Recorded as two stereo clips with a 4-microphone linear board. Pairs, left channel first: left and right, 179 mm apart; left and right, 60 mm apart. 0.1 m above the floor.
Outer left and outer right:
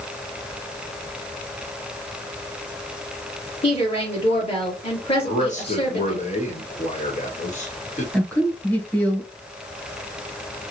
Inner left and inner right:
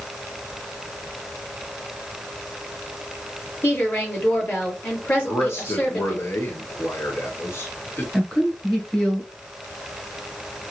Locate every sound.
3.6 s a woman speaking: 35° left (ahead or behind), 2 m
5.2 s a man speaking: 40° left (ahead or behind), 1.5 m
8.1 s a woman speaking: 10° left (ahead or behind), 1.3 m